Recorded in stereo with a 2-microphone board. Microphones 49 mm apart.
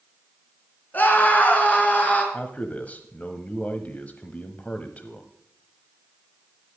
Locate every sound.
0.9 s a scream: 40° left (ahead or behind), 3 m; by 2.2 s 35° left (ahead or behind), 4 m
2.3 s a man speaking: 30° left (ahead or behind), 1.1 m